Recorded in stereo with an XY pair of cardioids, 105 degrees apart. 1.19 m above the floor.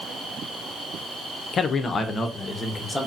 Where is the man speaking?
55° left, 0.6 m; by 3.1 s 25° left, 1.3 m.